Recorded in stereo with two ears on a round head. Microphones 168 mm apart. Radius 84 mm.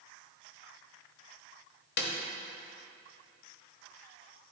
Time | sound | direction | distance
2.0 | a snare drum | 60° left (ahead or behind) | 1.3 m